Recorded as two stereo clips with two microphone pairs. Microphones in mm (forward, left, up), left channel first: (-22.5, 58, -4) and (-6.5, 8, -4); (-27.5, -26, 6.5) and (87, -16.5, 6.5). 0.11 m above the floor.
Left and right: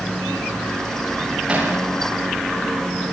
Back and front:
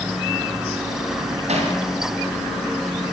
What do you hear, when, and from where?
1.5 s hammering: 5° right, 9 m